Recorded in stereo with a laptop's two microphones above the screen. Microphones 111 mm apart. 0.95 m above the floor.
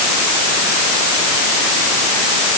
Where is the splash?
No splash in this recording.